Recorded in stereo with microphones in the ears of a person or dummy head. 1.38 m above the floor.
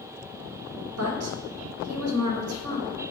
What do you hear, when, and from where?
1.0 s a woman speaking: 75° right (ahead or behind), 1.1 m